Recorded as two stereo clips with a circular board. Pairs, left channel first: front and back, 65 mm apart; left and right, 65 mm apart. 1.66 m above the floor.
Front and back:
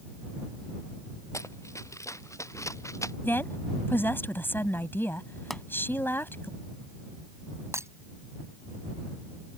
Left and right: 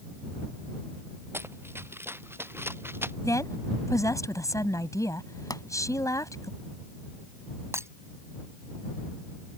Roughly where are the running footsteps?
Ahead right.